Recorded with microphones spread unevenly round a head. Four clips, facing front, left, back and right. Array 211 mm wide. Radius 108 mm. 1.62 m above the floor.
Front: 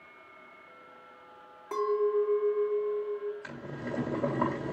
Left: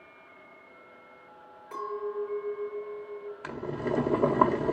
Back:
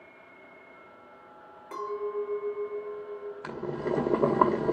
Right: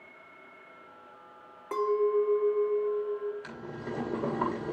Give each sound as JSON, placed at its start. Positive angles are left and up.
{"t": 1.7, "sound": "a clink", "azimuth_deg": -75, "distance_m": 4.5}
{"t": 3.4, "sound": "boiling", "azimuth_deg": 150, "distance_m": 2.0}